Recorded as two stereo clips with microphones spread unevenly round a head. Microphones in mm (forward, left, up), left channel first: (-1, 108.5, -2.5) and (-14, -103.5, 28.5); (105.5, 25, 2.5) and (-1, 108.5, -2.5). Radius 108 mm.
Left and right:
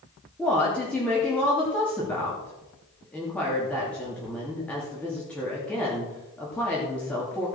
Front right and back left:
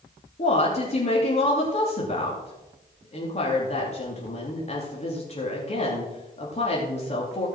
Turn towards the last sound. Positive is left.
turn(degrees=0)